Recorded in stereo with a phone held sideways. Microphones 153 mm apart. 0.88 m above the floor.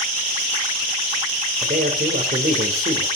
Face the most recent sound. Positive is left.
turn(degrees=-75)  # may be behind; listen again after turning